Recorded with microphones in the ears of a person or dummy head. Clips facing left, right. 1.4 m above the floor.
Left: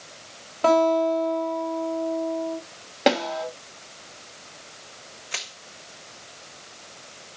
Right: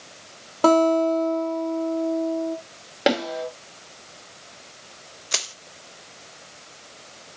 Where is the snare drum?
5° right (ahead or behind), 5 m.